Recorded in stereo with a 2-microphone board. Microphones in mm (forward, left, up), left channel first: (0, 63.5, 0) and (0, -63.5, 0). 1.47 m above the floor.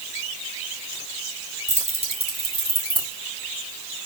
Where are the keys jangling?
60° right (ahead or behind), 3.5 m; by 3.1 s 40° right (ahead or behind), 5 m.